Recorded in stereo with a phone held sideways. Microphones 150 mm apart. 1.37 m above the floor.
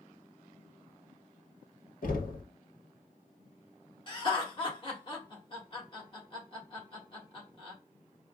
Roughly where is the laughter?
Left.